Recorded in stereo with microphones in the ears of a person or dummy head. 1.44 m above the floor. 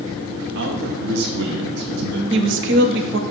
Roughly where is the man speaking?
Right.